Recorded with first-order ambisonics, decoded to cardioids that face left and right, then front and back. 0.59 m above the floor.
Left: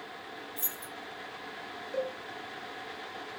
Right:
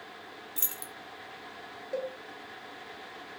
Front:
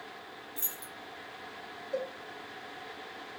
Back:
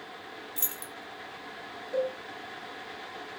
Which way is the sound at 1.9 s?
90° right.